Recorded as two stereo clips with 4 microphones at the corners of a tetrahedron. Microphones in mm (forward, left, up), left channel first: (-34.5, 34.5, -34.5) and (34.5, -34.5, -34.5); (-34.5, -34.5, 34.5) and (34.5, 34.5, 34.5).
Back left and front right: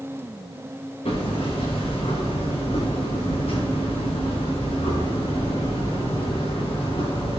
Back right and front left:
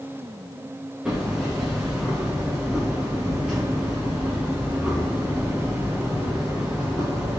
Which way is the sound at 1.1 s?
125° left.